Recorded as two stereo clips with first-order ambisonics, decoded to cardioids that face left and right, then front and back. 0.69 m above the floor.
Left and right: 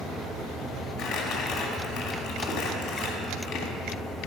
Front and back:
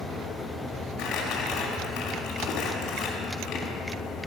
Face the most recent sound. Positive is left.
turn(degrees=50)